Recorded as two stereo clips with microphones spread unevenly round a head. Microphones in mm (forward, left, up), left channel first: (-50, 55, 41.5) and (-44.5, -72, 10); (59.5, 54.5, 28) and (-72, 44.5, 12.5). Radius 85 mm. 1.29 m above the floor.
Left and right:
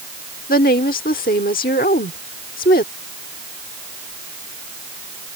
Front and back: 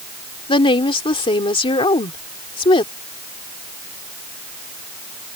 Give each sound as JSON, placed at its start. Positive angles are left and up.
{"t": 0.5, "sound": "a woman speaking", "azimuth_deg": 55}